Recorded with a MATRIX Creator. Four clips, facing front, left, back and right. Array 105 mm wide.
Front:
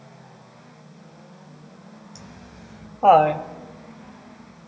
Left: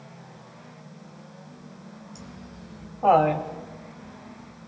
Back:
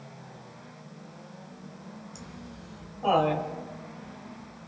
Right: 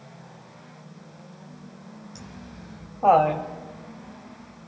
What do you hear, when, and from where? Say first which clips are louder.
2.1 s laughter: right 1 dB, even; 45° right, 2.5 m; by 4.7 s 55° left, 2.5 m